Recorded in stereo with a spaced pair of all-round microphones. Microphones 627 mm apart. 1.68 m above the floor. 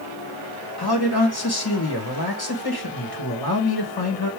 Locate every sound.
0.8 s a man speaking: 35° left (ahead or behind), 1.9 m